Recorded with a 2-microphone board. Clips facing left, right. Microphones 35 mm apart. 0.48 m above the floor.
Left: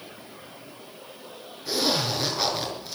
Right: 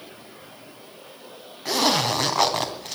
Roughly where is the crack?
I don't hear a crack.